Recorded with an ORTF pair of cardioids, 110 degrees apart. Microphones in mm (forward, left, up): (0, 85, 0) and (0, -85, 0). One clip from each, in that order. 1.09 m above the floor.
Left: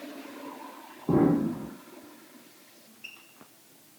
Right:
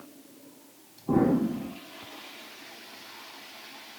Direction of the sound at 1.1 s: 20° left.